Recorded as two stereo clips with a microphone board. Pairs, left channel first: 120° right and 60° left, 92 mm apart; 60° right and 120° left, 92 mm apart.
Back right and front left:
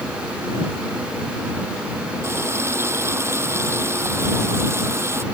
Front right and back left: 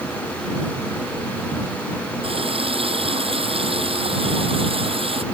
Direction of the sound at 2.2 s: 120° left.